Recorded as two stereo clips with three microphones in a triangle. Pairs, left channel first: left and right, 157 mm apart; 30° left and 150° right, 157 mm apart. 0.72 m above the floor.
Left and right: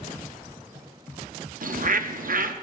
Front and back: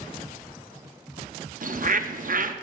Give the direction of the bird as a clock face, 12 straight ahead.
4 o'clock.